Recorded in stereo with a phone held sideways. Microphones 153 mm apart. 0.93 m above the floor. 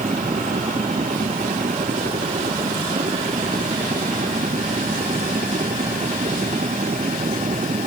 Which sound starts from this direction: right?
A machine running, at 0.0 s.